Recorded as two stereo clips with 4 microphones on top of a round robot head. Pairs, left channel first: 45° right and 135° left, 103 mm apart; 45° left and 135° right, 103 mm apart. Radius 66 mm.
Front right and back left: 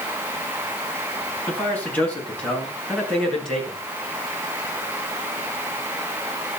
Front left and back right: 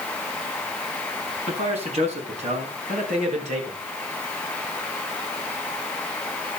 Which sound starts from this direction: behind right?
A man speaking, at 1.5 s.